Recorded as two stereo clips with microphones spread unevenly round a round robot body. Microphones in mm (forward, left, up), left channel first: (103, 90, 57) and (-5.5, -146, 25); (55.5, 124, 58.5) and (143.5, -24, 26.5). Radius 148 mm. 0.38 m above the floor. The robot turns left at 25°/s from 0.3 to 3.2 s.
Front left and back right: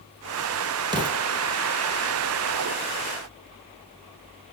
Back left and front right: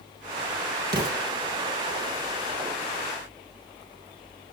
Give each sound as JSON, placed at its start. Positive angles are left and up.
{"t": 0.9, "sound": "an explosion", "azimuth_deg": -40, "distance_m": 3.0}